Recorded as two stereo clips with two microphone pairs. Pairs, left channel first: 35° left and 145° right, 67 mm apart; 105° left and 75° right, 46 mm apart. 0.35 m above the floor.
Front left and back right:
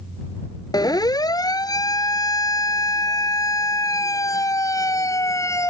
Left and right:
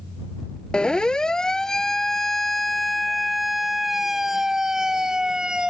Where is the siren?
35° left; by 5.7 s straight ahead.